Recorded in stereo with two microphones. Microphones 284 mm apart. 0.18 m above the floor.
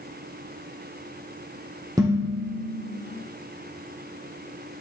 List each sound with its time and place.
2.0 s dishes clattering: 15° right (ahead or behind), 4 m